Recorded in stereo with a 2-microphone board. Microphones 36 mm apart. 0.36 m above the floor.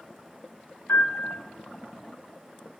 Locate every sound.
0.9 s a piano: 65° left (ahead or behind), 1.4 m